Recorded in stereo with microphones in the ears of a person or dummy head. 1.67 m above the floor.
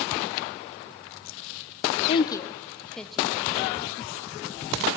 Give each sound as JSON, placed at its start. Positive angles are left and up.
{"t": 2.1, "sound": "a woman speaking", "side_deg": 30, "distance_m": 0.7}